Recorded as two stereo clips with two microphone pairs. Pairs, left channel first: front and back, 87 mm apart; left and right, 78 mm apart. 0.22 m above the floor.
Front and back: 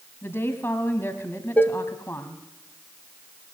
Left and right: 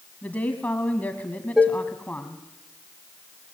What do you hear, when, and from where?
0.2 s a woman speaking: 40° left, 1.6 m
1.6 s dishes clattering: 20° right, 0.7 m